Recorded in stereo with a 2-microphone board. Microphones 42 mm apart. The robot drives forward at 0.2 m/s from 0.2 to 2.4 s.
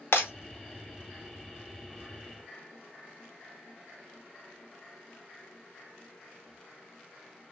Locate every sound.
0.1 s breaking glass: 65° left (ahead or behind), 0.7 m